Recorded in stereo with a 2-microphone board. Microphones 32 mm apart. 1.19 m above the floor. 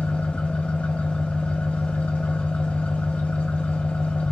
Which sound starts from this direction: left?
An engine running, at 0.0 s.